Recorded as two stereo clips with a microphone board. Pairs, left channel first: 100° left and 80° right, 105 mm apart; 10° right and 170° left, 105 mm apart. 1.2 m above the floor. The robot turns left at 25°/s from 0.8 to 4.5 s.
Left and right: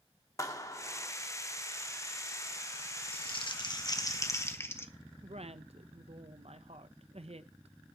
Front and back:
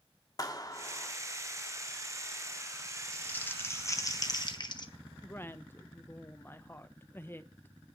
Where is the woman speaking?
80° right, 0.9 m.